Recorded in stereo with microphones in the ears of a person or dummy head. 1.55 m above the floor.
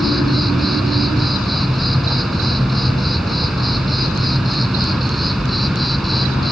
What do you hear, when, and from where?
0.0 s an insect: centre (ahead or behind)